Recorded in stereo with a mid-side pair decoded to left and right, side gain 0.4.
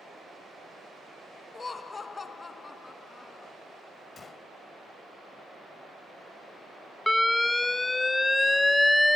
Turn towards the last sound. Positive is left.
turn(degrees=20)